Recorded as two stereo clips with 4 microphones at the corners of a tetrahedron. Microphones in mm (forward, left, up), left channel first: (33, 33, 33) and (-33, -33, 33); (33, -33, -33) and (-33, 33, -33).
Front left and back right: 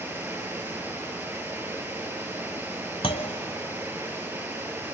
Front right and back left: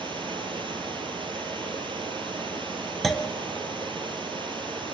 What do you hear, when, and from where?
0.0 s running water: 160° left, 3 m
3.0 s a clunk: 40° left, 1.1 m